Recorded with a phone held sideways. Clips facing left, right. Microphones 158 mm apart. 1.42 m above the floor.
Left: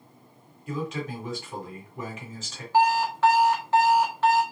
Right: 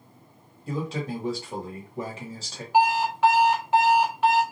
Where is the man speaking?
35° right (ahead or behind), 1.3 m.